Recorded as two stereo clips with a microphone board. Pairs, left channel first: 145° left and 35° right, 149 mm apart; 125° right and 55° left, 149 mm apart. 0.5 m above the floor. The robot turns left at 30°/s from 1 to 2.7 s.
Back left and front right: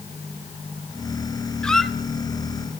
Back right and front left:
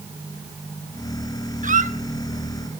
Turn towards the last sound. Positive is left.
turn(degrees=30)